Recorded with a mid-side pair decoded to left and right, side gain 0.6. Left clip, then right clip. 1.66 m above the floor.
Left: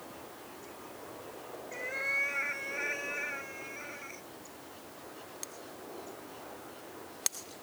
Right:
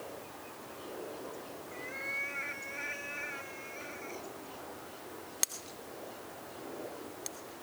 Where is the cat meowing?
35° left; by 4.2 s 15° left.